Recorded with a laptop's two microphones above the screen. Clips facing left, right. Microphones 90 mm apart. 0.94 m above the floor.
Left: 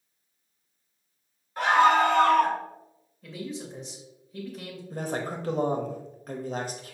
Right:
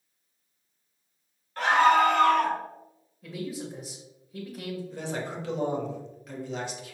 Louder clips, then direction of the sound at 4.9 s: Left 7 dB; 45° left (ahead or behind).